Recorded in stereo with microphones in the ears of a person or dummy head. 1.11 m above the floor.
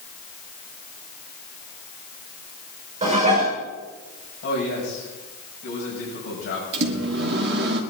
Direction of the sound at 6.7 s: 60° right (ahead or behind).